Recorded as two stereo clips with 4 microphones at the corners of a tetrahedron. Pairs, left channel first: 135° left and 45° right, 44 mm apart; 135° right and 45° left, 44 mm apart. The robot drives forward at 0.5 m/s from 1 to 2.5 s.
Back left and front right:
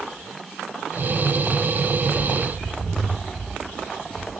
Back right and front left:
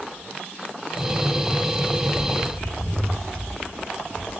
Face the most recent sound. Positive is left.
turn(degrees=-170)